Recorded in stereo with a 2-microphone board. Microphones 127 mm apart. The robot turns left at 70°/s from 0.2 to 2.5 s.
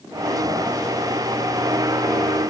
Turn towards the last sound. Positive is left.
No sound to turn to.